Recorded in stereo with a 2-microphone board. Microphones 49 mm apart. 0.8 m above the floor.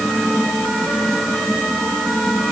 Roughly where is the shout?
No shout in this recording.